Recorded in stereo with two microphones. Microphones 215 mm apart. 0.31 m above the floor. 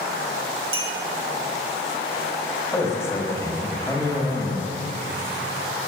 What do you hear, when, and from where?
0.7 s a clink: 70° right (ahead or behind), 2.5 m
2.7 s a man speaking: 10° left (ahead or behind), 1.6 m